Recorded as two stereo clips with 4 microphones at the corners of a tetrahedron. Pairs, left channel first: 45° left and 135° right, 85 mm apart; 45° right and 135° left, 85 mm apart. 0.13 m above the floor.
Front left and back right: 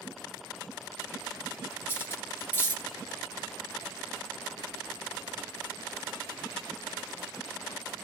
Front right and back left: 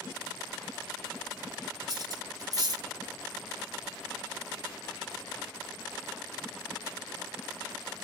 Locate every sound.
1.9 s cutlery clinking: 100° left, 1.4 m